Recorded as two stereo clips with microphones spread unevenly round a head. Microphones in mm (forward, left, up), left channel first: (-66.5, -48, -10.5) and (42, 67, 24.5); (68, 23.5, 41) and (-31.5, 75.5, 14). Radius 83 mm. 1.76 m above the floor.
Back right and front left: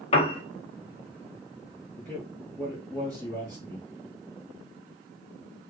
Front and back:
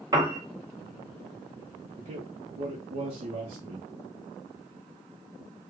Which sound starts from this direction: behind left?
A man speaking, at 2.0 s.